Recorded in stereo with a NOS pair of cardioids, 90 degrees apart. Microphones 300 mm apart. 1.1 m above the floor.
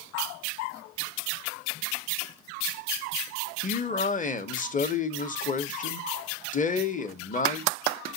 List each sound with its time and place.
3.6 s a man speaking: 25° left, 0.8 m